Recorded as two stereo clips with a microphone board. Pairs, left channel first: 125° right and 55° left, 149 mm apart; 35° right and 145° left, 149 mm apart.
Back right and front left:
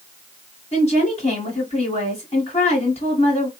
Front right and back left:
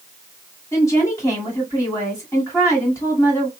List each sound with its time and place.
0.7 s a woman speaking: 100° right, 2 m